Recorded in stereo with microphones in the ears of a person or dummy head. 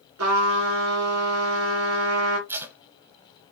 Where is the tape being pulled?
15° right (ahead or behind), 0.6 m.